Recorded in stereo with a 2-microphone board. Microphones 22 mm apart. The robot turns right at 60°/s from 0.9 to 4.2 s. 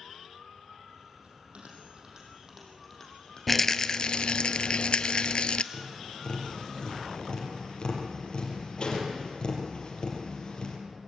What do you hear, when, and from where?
1.2 s a bell: 80° right, 5.5 m; by 4.5 s 85° left, 5.5 m
3.5 s a rattle: 10° left, 0.6 m; by 5.6 s 55° left, 0.6 m
5.7 s tapping: 40° left (ahead or behind), 4.5 m